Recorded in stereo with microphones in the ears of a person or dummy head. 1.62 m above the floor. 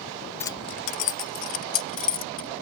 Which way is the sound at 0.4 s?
10° left (ahead or behind).